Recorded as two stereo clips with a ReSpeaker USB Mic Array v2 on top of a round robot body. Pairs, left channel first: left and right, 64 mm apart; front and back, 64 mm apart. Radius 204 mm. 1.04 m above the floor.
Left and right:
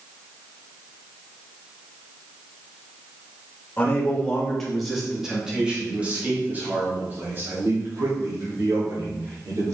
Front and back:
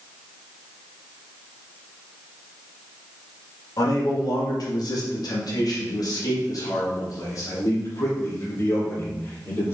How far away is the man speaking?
About 2 m.